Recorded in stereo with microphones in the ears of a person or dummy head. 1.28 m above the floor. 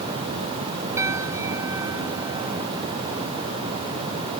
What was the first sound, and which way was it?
A piano, 20° right (ahead or behind).